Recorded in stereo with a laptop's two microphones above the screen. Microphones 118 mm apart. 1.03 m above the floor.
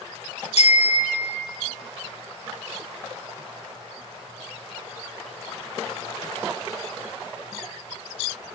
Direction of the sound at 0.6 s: 60° left (ahead or behind).